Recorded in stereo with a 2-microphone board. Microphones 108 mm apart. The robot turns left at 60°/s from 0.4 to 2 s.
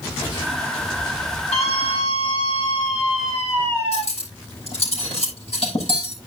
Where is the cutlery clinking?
70° left (ahead or behind), 7 m.